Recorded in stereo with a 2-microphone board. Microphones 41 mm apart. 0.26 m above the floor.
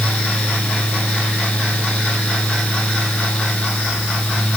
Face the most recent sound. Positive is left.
No sound to turn to.